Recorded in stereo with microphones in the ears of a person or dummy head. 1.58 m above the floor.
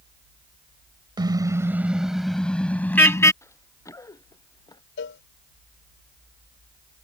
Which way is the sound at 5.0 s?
65° left (ahead or behind).